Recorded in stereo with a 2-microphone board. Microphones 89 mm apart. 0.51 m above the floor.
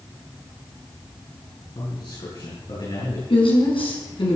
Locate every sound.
1.8 s a man speaking: 60° left (ahead or behind), 7.5 m
3.3 s a woman speaking: 75° left (ahead or behind), 5 m